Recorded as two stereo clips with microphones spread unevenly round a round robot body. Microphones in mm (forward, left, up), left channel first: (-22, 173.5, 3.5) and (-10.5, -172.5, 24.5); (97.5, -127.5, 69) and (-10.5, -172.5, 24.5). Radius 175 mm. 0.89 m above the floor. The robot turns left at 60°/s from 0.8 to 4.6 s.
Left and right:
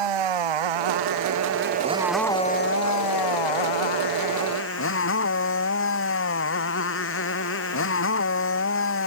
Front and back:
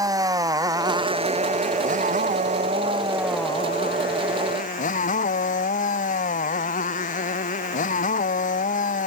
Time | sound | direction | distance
0.0 | a motorcycle | 95° right | ?